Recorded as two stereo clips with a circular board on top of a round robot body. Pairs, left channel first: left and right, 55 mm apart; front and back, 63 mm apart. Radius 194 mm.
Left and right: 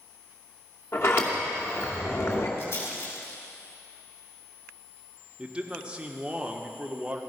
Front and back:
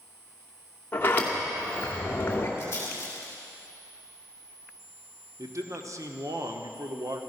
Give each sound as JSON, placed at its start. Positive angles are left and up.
{"t": 0.9, "sound": "a sliding door", "azimuth_deg": 55, "distance_m": 2.5}
{"t": 2.6, "sound": "a rattle", "azimuth_deg": 55, "distance_m": 5.5}
{"t": 5.4, "sound": "a man speaking", "azimuth_deg": -160, "distance_m": 1.3}